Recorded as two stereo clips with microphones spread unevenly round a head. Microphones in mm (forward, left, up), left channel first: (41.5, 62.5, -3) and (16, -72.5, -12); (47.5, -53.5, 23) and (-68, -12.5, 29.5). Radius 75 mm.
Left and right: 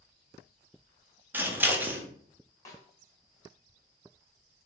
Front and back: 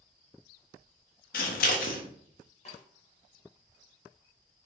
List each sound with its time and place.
1.3 s scissors: 25° right, 0.7 m
2.6 s a snare drum: 20° left, 1.0 m